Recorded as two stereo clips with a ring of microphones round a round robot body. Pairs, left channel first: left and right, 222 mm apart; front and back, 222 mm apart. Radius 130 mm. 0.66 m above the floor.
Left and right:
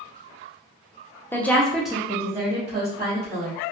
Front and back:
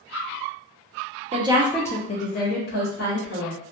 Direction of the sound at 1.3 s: 160° left.